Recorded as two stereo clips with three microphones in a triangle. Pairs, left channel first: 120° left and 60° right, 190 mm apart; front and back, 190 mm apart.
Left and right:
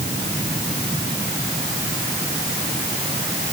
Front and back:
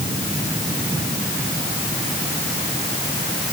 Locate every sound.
Only background noise.